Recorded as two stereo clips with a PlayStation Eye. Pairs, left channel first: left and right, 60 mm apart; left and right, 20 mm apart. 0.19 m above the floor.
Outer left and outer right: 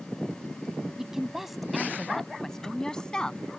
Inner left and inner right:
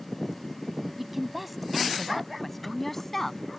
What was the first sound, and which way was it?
A woman speaking, 10° right (ahead or behind).